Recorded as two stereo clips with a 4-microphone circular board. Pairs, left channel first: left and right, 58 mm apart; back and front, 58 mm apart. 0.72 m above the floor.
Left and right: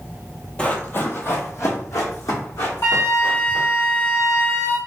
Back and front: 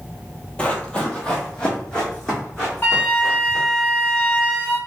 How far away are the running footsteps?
About 0.8 m.